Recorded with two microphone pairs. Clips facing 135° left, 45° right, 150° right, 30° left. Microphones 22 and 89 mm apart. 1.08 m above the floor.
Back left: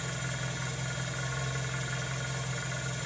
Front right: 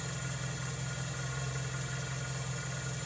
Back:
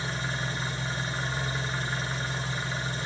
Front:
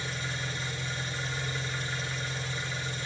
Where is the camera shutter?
I don't hear a camera shutter.